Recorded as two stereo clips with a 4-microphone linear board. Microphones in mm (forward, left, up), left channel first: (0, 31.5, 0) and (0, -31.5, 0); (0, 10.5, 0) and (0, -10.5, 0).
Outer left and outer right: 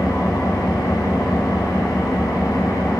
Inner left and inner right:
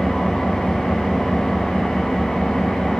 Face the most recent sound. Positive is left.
turn(degrees=80)